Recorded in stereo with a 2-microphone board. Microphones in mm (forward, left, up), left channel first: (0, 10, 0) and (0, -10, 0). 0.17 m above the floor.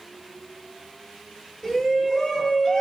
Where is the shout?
35° left (ahead or behind), 2 m.